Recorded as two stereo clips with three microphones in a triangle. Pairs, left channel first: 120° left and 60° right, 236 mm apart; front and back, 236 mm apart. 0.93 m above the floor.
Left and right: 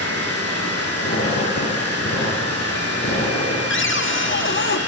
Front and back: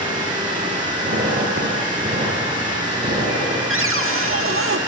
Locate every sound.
0.0 s running water: 105° left, 9 m
1.0 s a squeak: 135° left, 9 m
3.7 s a cupboard door: 155° left, 1.5 m